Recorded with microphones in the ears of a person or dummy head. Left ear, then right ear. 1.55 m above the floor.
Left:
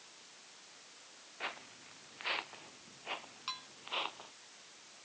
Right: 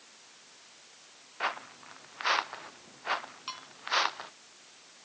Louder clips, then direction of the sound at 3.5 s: Left 1 dB; 5° right (ahead or behind).